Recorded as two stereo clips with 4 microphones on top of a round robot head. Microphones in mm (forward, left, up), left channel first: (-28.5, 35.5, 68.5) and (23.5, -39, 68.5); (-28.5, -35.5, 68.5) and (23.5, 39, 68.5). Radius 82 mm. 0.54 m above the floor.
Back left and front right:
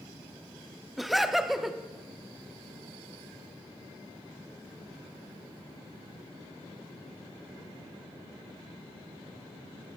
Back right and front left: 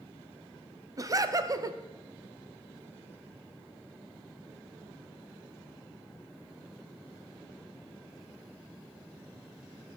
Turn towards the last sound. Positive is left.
turn(degrees=35)